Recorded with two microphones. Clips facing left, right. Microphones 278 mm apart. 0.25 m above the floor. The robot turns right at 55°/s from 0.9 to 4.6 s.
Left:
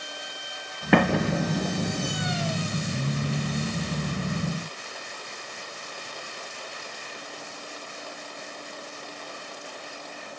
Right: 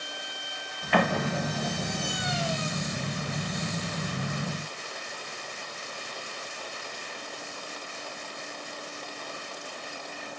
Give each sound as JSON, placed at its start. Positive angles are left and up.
{"t": 0.9, "sound": "an explosion", "side_deg": 75, "distance_m": 1.2}